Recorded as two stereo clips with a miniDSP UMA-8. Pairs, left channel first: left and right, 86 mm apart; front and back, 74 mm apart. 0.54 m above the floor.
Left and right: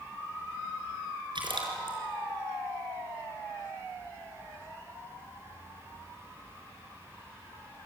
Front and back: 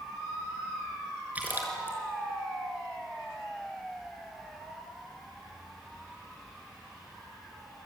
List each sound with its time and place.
1.4 s a splash: 110° right, 5 m